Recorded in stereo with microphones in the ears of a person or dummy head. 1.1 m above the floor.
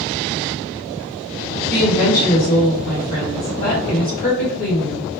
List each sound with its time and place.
1.7 s a woman speaking: 40° left (ahead or behind), 1.9 m